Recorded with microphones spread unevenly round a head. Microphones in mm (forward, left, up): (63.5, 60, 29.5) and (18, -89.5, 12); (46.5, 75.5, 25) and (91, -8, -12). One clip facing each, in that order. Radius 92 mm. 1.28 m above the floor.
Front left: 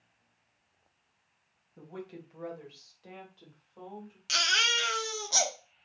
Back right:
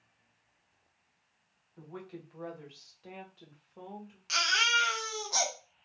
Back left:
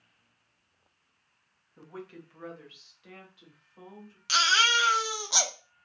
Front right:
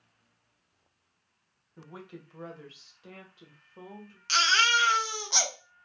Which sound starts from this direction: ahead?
A woman speaking, at 1.8 s.